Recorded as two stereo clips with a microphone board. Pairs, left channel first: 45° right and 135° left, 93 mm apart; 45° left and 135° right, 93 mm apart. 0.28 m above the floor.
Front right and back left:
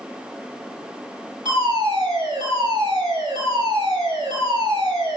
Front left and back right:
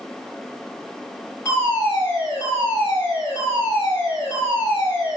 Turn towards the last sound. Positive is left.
turn(degrees=105)